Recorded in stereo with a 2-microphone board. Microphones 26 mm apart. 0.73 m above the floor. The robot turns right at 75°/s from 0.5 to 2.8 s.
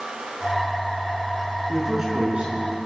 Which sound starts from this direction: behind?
A man speaking, at 1.7 s.